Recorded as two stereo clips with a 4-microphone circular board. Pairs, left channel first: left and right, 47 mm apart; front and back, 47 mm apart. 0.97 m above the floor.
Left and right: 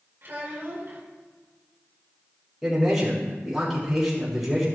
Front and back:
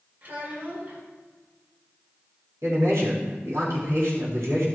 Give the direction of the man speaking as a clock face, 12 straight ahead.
6 o'clock.